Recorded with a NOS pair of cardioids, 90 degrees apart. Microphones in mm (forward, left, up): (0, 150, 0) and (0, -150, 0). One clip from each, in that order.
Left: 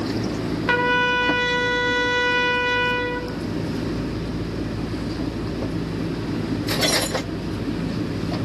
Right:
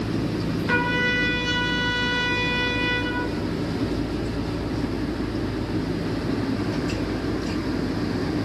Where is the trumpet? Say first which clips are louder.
Left 3 dB; 45° left, 1.2 m.